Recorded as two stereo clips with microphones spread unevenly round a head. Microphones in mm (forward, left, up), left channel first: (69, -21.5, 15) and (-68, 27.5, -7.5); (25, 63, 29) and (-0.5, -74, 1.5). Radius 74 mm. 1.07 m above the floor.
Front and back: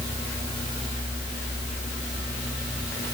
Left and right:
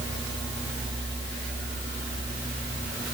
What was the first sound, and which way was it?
Only background noise.